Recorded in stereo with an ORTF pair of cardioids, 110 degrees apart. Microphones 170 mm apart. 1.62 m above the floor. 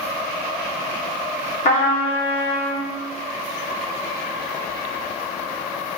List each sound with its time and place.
1.6 s a trumpet: 50° left, 1.1 m